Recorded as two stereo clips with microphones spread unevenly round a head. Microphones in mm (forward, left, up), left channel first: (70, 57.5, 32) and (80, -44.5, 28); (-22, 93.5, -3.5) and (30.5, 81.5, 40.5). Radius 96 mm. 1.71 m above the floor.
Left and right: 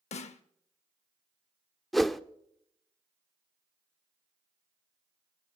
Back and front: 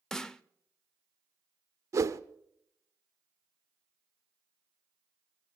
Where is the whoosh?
5° left, 0.6 m.